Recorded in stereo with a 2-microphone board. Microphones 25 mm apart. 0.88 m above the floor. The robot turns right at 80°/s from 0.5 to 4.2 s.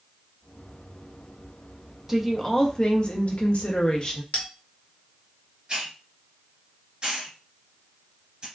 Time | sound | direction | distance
2.1 | a woman speaking | 20° right | 0.9 m
4.3 | a bell | 50° left (ahead or behind) | 1.2 m
5.7 | a hiss | 35° right (ahead or behind) | 2 m